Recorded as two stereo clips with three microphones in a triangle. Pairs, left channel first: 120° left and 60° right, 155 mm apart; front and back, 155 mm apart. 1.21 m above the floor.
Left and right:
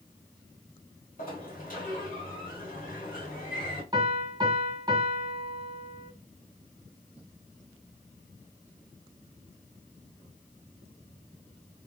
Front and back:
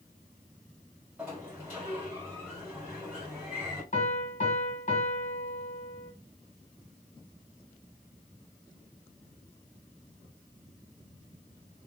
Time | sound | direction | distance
1.2 | a sliding door | 105° left | 2 m
3.9 | a piano | straight ahead | 1.6 m